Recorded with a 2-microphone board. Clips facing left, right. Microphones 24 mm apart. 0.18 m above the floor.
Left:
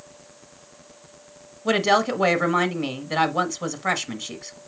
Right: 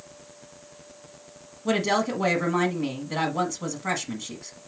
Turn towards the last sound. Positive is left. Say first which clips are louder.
# left 4 dB
turn(degrees=20)  # may be behind; listen again after turning